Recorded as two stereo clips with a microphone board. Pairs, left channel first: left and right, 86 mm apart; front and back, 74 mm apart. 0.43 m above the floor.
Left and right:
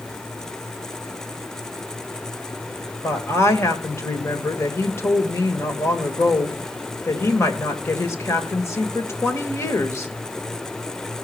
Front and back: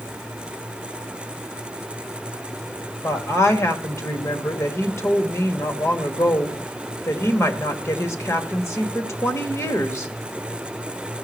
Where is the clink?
I don't hear a clink.